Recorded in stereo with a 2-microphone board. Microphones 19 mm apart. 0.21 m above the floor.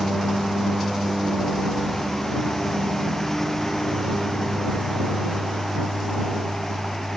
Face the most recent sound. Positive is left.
turn(degrees=20)  # may be behind; listen again after turning